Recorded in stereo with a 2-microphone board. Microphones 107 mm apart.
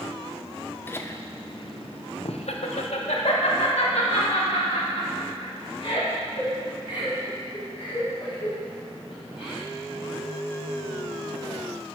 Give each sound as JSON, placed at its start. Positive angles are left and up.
{"t": 0.9, "sound": "laughter", "side_deg": 20, "distance_m": 1.1}